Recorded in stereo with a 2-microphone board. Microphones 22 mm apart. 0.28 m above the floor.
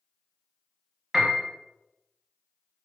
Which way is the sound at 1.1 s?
25° right (ahead or behind).